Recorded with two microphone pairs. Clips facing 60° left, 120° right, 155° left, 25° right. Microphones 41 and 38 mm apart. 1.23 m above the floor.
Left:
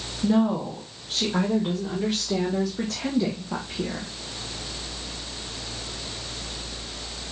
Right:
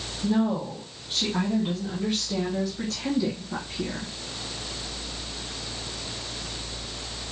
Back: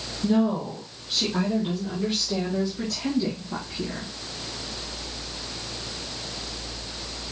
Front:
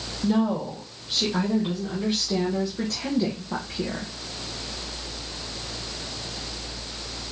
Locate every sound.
0.2 s a woman speaking: 55° left, 2.5 m; by 4.1 s straight ahead, 1.0 m